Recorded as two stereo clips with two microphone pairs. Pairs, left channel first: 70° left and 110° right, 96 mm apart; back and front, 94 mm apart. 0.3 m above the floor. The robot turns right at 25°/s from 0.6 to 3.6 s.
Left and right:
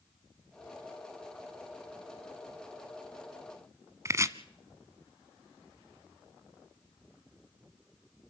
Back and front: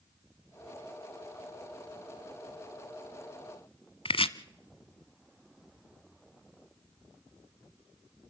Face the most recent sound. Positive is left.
turn(degrees=-165)